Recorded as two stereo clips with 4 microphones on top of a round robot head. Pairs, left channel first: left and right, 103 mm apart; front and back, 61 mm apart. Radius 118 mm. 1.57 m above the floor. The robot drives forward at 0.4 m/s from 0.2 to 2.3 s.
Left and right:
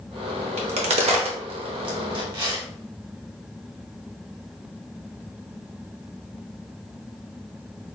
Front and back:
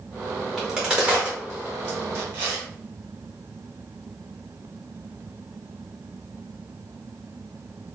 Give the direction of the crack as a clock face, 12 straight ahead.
3 o'clock.